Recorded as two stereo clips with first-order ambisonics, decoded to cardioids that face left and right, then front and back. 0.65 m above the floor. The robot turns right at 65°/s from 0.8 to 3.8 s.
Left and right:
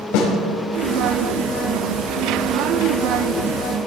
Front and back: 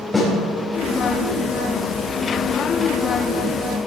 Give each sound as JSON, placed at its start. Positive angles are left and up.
{"t": 0.1, "sound": "a snare drum", "azimuth_deg": 85, "distance_m": 4.5}